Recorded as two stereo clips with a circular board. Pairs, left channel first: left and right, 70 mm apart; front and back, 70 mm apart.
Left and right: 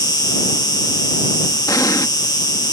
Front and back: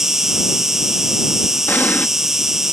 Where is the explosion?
65° left.